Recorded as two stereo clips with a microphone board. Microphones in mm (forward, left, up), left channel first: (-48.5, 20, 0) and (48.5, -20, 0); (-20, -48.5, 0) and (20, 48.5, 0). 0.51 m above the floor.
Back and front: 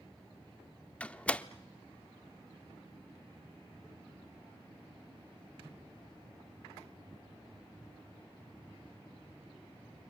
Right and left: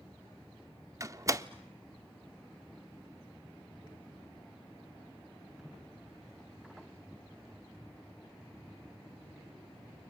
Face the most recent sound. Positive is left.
turn(degrees=90)